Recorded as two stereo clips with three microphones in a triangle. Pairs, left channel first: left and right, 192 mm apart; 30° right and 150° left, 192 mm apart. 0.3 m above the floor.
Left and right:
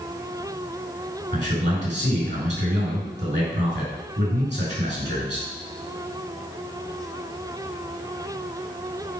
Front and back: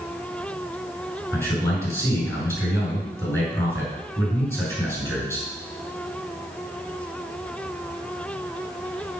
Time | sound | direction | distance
1.3 | a man speaking | 110° right | 4.5 m